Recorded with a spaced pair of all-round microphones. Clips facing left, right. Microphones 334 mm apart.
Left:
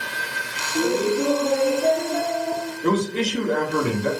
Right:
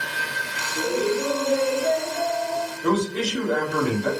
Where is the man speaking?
30° left (ahead or behind), 1.1 m.